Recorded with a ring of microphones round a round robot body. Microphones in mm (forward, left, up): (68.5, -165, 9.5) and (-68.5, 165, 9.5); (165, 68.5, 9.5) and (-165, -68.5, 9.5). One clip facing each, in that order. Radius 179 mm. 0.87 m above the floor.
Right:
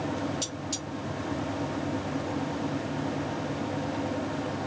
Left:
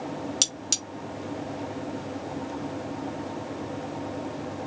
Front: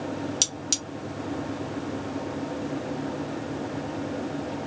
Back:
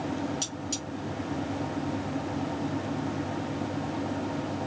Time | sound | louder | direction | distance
0.4 | cutlery clinking | right 2 dB, even | 80° left | 0.8 m